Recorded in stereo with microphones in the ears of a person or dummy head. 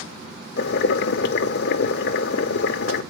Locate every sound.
0.6 s boiling: 55° left (ahead or behind), 0.9 m